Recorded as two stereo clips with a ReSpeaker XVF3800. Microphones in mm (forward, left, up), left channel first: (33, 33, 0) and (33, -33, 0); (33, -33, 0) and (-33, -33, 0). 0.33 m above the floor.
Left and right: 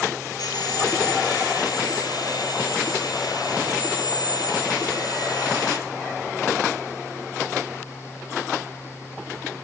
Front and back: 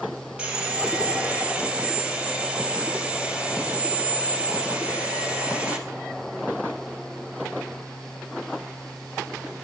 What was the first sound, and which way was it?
Sawing, 110° left.